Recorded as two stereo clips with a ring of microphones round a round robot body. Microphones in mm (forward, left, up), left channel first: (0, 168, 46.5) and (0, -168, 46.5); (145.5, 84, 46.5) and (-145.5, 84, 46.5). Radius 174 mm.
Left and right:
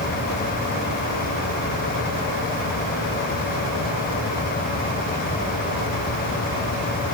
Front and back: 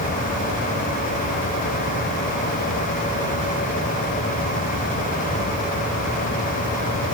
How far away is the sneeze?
No sneeze in this recording.